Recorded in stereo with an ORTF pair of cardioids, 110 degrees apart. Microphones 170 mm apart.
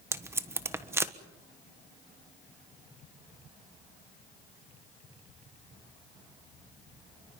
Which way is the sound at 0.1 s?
15° right.